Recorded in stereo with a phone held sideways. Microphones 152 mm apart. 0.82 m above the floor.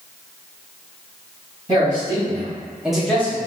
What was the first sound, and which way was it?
A man speaking, 35° right (ahead or behind).